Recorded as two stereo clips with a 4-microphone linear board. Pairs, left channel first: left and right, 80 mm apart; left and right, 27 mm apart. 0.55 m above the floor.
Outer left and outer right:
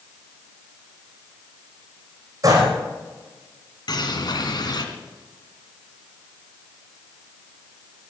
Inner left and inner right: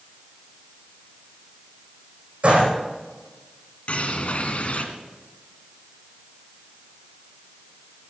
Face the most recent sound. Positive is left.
turn(degrees=55)  # may be behind; listen again after turning